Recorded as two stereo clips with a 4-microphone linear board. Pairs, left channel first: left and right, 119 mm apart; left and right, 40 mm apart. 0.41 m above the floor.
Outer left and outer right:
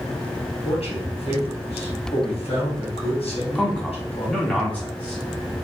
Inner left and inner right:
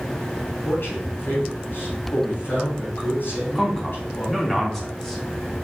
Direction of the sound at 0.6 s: 60° left (ahead or behind).